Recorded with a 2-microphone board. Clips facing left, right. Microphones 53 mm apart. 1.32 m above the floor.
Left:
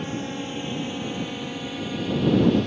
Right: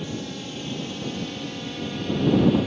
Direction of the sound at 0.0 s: 30° left (ahead or behind).